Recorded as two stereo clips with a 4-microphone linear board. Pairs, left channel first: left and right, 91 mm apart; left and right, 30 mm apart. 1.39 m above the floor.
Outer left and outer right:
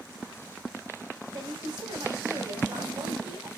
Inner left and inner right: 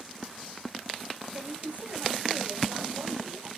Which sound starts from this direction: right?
A woman speaking, at 1.3 s.